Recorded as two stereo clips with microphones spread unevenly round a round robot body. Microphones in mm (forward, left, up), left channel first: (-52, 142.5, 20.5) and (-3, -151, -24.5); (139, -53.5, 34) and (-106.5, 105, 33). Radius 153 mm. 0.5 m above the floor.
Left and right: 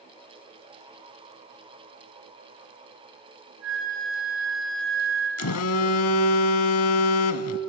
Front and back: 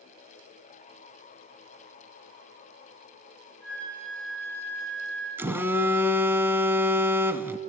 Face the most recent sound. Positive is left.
turn(degrees=65)